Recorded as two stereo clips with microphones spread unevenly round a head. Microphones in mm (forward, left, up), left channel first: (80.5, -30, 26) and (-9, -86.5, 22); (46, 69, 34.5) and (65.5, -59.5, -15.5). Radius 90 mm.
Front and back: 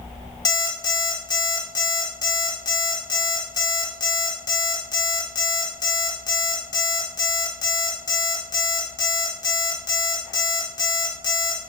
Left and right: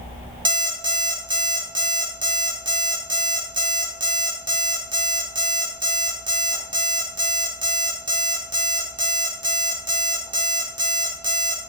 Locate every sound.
0.5 s an alarm clock: 20° right, 2.5 m